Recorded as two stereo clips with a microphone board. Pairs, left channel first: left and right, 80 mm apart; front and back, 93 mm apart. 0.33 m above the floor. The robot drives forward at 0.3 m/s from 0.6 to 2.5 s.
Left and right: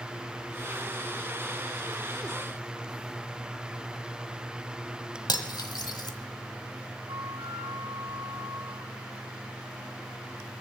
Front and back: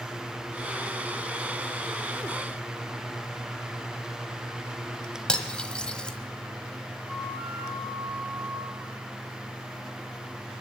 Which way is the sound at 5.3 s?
80° left.